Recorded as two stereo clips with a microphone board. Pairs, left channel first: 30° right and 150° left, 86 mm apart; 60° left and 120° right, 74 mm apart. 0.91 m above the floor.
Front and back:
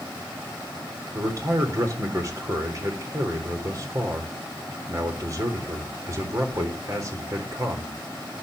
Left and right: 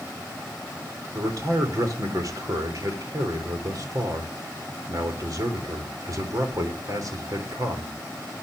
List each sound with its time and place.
1.1 s a man speaking: 160° right, 3.5 m